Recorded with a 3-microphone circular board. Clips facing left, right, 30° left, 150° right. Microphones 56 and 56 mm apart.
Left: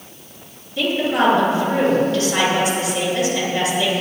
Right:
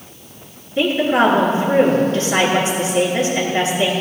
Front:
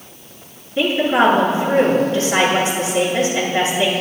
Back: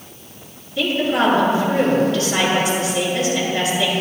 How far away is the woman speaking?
About 5.5 m.